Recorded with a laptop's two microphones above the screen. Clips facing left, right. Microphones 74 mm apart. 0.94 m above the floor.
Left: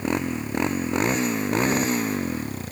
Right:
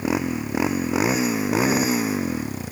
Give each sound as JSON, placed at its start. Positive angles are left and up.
{"t": 0.0, "sound": "a motorcycle", "side_deg": -5}